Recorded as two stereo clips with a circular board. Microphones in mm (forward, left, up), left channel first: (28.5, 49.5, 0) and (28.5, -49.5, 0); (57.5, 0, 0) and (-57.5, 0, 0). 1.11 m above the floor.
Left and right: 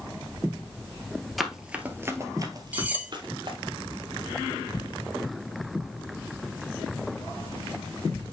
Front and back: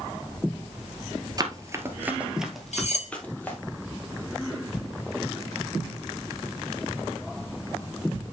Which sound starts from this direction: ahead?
Cutlery clinking, at 2.7 s.